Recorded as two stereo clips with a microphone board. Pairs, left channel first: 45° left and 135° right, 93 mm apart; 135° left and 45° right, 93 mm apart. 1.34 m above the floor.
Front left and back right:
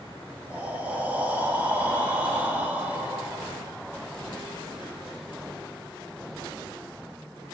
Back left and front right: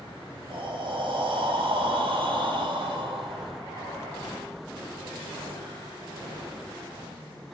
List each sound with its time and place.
0.5 s breathing: 65° right, 1.0 m